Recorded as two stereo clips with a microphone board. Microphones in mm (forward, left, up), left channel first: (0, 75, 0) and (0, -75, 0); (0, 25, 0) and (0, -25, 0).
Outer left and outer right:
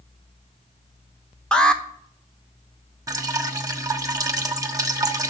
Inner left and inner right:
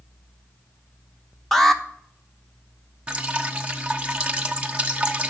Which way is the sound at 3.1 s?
25° right (ahead or behind).